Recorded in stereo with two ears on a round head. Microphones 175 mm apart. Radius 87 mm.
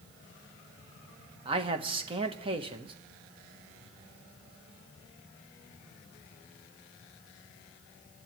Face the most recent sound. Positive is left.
turn(degrees=-25)  # may be behind; listen again after turning